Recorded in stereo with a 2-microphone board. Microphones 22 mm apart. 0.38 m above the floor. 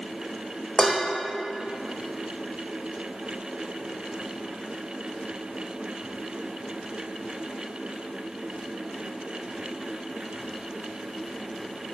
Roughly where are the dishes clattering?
Left.